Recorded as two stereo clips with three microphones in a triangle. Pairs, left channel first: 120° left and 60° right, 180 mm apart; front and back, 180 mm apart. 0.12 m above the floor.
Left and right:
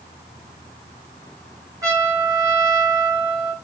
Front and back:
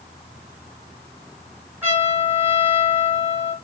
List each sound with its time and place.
1.8 s a trumpet: 110° right, 1.9 m